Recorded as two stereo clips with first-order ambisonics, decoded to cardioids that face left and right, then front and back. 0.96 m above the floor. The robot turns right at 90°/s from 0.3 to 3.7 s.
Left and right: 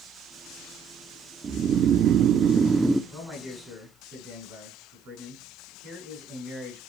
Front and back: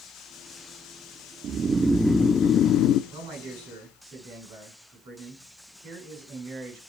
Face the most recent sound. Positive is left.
turn(degrees=-130)